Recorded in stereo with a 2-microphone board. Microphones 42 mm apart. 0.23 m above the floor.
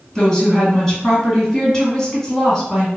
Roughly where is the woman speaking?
Centre.